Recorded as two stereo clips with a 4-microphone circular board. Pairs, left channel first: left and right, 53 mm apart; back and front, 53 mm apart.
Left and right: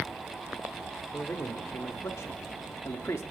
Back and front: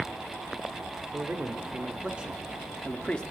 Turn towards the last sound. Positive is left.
turn(degrees=115)